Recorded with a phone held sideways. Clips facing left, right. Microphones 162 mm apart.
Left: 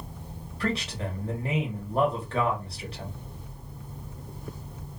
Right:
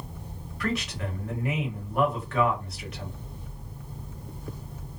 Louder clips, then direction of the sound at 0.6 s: Even; 30° left (ahead or behind).